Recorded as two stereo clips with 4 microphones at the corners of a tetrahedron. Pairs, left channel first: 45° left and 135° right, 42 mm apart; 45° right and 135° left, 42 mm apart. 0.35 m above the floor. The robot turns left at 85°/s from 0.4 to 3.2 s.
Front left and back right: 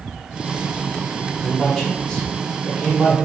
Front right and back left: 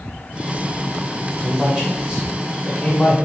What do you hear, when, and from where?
1.4 s a man speaking: 160° left, 1.3 m; by 3.2 s 5° left, 1.3 m